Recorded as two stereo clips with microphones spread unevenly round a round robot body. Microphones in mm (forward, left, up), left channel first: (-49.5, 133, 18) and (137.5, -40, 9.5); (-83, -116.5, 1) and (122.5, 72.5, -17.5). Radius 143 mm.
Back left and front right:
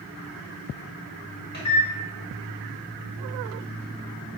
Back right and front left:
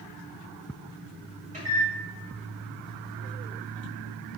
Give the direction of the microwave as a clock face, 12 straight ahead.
9 o'clock.